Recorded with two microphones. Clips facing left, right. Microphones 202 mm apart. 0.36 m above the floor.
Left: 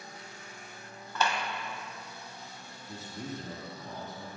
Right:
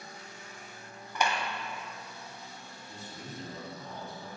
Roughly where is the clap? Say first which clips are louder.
Even; centre.